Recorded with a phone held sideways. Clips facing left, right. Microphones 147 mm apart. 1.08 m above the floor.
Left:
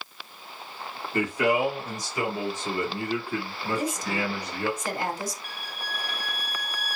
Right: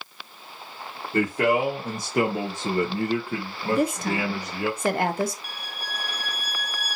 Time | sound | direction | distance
1.1 | a man speaking | 45° right (ahead or behind) | 1.2 m
3.7 | a woman speaking | 60° right (ahead or behind) | 0.6 m
5.4 | a violin | 10° right (ahead or behind) | 1.0 m